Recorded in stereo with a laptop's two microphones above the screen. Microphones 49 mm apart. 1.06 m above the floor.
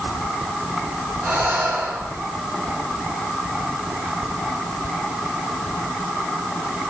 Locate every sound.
1.2 s breathing: 55° right (ahead or behind), 5.5 m